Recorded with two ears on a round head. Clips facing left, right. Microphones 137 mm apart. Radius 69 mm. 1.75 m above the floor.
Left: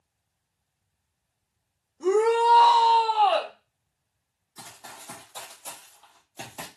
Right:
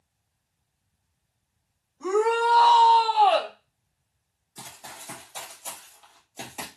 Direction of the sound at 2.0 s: 35° left (ahead or behind).